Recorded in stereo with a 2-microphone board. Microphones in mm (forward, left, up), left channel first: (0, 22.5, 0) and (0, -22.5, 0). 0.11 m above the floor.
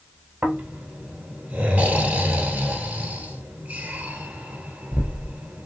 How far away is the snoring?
About 1.4 m.